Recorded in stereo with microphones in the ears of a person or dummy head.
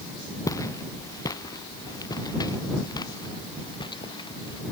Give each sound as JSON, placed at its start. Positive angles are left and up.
{"t": 0.5, "sound": "footsteps", "side_deg": 20}